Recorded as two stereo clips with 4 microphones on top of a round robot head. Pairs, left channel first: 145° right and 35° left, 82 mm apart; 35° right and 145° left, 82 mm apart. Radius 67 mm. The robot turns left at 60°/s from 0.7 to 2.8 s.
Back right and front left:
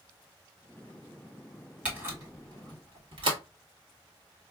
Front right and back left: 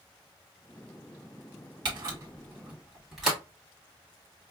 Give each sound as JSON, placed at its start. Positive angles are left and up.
{"t": 1.9, "sound": "a camera shutter", "azimuth_deg": 115, "distance_m": 1.7}